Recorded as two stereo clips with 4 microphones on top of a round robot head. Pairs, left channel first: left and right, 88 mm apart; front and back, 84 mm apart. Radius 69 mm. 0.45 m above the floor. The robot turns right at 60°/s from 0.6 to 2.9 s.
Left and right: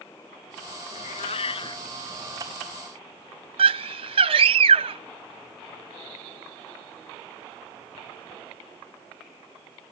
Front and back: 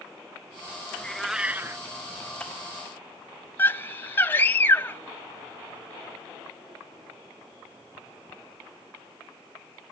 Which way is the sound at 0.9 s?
70° left.